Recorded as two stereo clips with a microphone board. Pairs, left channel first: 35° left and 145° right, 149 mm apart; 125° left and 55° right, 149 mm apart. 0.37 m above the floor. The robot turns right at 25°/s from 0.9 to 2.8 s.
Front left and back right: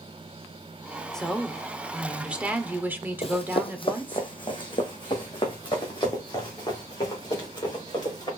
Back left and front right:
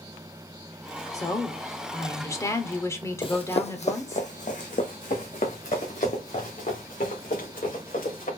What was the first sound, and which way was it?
A woman speaking, 115° left.